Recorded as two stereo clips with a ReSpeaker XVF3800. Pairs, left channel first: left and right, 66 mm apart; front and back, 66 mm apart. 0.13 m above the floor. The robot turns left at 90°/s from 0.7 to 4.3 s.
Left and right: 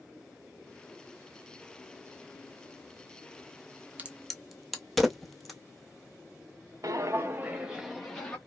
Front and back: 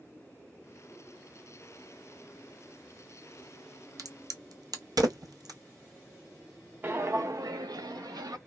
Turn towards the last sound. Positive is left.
turn(degrees=170)